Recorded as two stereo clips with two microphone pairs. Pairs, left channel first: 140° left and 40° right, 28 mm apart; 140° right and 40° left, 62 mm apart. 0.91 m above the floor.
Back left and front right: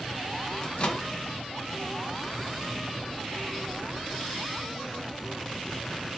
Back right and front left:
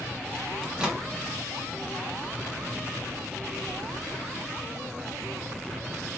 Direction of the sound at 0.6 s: 115° left.